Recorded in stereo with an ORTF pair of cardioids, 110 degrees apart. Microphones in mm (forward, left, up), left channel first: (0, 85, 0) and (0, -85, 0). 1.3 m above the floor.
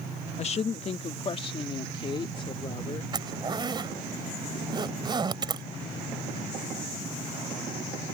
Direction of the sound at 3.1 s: 25° right.